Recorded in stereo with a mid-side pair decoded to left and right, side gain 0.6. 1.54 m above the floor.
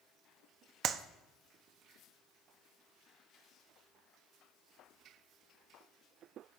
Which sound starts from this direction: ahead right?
A clap, at 0.8 s.